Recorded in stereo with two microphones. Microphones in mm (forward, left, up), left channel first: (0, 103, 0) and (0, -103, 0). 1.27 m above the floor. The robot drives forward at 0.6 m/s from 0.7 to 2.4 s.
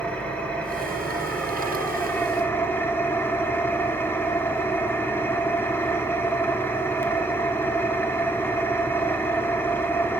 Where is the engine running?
5° left (ahead or behind), 2 m; by 10.2 s 10° left (ahead or behind), 1.3 m.